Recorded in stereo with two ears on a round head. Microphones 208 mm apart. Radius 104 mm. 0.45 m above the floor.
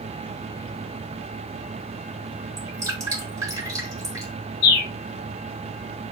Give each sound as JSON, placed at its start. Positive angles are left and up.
{"t": 2.6, "sound": "dripping", "side_deg": -15, "distance_m": 3.5}
{"t": 4.6, "sound": "a bird", "side_deg": 45, "distance_m": 1.9}